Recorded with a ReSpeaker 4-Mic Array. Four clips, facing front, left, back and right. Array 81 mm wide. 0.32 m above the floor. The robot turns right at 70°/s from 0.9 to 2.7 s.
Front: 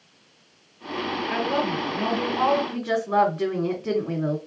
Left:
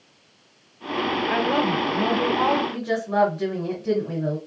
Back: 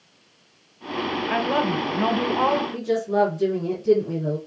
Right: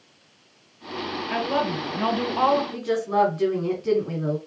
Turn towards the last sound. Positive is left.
turn(degrees=-15)